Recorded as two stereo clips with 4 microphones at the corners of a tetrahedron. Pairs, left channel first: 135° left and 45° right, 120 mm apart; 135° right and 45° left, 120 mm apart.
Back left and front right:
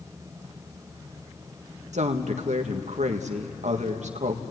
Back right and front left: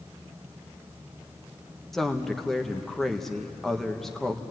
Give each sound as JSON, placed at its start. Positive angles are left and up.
{"t": 1.9, "sound": "a woman speaking", "azimuth_deg": -45, "distance_m": 1.4}